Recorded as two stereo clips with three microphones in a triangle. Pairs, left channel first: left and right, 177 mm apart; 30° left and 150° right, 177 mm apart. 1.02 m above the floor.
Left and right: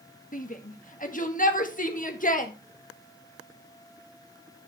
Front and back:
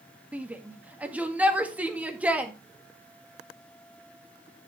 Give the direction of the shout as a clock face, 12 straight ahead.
8 o'clock.